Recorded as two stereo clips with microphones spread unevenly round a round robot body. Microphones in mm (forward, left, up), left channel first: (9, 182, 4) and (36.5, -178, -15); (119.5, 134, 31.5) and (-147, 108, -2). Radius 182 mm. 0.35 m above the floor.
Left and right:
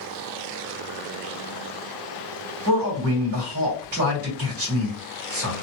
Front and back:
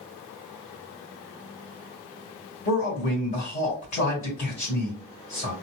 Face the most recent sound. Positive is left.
turn(degrees=-60)